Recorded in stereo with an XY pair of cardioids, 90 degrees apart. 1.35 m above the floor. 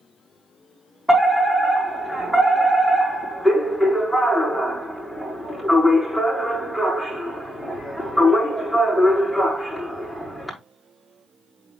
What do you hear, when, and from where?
1.1 s a fire alarm: 10° left, 4.5 m